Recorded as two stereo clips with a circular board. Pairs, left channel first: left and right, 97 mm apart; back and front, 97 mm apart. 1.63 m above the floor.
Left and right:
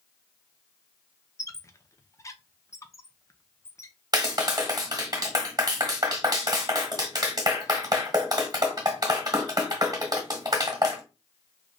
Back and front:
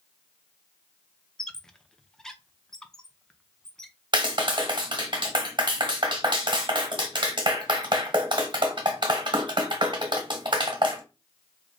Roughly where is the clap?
Ahead right.